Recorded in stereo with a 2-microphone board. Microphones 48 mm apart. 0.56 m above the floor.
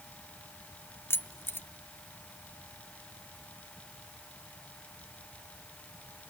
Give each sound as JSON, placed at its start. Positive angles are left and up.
{"t": 1.1, "sound": "keys jangling", "side_deg": 55, "distance_m": 0.6}